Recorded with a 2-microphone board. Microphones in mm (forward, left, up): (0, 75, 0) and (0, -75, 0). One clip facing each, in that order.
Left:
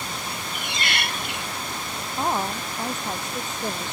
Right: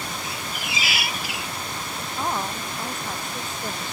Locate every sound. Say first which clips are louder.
0.2 s a squeak: even; 5° right (ahead or behind)
2.2 s a woman speaking: left 3 dB; 20° left (ahead or behind)